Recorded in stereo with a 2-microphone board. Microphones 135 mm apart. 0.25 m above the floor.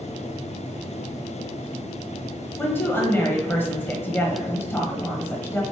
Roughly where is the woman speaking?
Centre.